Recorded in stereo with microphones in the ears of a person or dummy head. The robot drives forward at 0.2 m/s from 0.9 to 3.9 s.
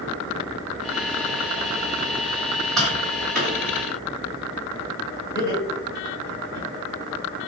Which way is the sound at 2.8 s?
Centre (ahead or behind).